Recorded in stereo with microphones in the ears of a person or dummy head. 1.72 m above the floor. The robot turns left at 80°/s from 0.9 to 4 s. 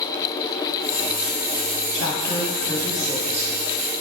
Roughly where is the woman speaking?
Left.